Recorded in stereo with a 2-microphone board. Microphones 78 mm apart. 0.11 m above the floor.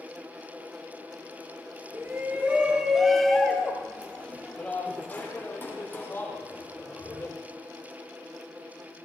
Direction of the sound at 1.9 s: 30° right (ahead or behind).